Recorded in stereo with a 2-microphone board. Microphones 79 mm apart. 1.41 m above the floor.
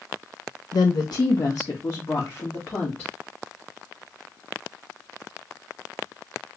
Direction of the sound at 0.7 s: 60° left (ahead or behind).